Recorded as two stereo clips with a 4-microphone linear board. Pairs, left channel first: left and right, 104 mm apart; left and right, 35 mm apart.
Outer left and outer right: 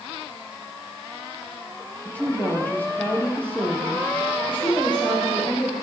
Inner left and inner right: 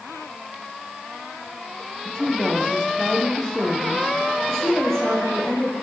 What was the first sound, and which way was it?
A woman speaking, 15° left (ahead or behind).